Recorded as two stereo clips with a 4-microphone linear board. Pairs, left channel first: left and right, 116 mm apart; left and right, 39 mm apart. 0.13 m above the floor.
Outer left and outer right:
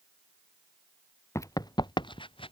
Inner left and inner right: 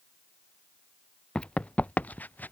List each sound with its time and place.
1.4 s running footsteps: 25° left (ahead or behind); by 2.5 s 50° left (ahead or behind)